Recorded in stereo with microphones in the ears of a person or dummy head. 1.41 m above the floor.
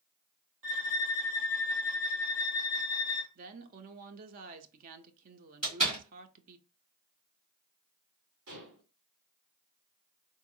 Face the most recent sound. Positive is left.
turn(degrees=-65)  # may be behind; listen again after turning